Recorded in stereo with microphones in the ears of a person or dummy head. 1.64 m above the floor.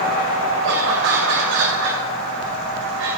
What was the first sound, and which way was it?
Laughter, 75° right (ahead or behind).